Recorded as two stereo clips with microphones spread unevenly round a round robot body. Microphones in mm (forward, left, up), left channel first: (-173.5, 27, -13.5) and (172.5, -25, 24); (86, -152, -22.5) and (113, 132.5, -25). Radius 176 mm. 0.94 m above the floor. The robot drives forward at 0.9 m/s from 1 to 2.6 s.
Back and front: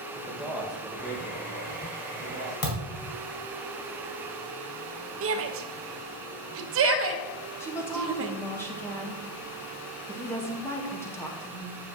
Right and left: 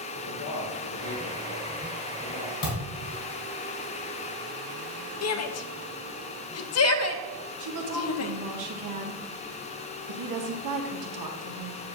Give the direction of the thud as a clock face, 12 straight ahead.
5 o'clock.